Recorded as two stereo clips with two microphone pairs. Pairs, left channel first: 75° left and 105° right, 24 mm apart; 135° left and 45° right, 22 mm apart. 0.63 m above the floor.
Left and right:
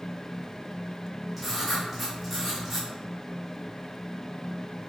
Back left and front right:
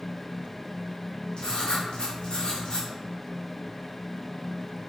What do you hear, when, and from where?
1.4 s writing: 170° left, 0.9 m